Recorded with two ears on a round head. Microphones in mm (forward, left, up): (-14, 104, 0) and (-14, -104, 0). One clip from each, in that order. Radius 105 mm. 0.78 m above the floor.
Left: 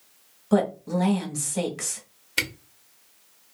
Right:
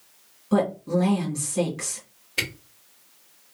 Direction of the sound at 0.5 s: 30° left (ahead or behind).